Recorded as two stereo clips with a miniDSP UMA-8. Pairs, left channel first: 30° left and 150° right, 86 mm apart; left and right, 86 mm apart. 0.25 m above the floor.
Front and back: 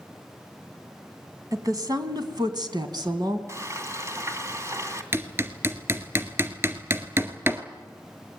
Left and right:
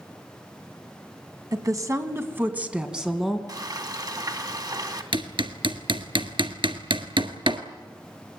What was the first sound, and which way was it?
A woman speaking, 115° right.